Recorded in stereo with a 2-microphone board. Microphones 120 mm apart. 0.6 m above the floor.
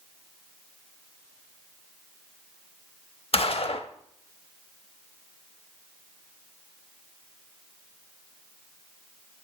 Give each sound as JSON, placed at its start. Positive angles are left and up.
{"t": 3.3, "sound": "a gunshot", "side_deg": 55, "distance_m": 0.6}